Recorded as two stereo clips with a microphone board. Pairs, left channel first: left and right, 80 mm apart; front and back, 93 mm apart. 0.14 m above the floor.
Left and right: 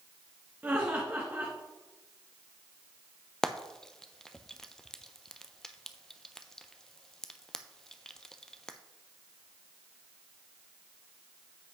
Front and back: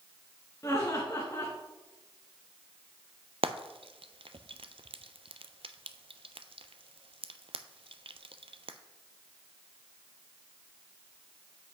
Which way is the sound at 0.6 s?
30° right.